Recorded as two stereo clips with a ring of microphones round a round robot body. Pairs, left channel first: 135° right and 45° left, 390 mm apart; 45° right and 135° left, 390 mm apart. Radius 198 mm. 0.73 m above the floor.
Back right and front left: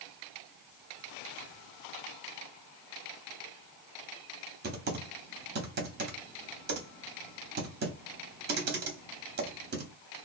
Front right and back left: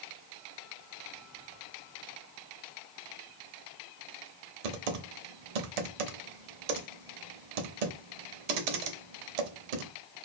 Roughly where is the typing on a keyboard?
Behind left.